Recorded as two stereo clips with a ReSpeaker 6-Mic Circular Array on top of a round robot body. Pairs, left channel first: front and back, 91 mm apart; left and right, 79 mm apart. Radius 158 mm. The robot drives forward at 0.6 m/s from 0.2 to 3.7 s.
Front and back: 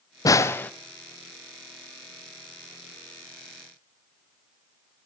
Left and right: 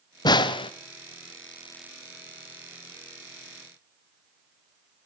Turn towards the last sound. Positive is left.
turn(degrees=160)